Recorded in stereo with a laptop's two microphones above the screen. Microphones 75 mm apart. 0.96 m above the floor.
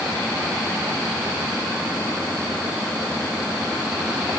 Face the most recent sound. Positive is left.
No sound to turn to.